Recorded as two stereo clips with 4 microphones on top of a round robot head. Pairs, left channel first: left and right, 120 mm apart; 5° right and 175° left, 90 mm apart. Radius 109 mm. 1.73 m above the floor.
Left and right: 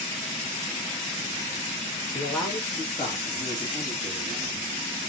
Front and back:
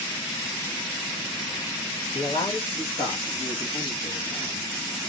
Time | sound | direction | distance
2.1 | a man speaking | 10° left | 2.5 m